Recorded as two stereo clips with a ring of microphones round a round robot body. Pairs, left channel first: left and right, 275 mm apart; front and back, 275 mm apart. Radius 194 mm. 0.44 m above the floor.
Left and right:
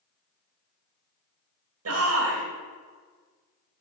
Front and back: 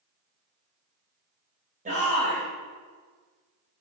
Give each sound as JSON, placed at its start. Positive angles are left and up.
{"t": 1.9, "sound": "a shout", "azimuth_deg": -115, "distance_m": 2.5}